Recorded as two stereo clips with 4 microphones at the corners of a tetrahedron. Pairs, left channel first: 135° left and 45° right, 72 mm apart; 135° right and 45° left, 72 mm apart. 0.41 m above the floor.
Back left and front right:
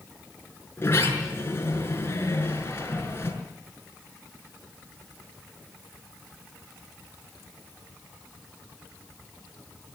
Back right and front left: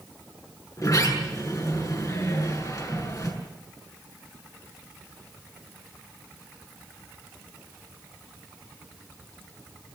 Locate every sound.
0.8 s a sliding door: 170° right, 6.5 m